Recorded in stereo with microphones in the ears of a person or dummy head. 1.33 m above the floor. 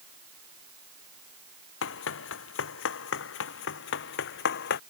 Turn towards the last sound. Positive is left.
turn(degrees=55)  # may be behind; listen again after turning